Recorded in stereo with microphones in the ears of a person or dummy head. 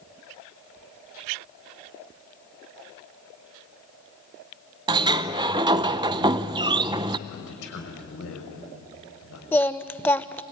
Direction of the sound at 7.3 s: 75° left (ahead or behind).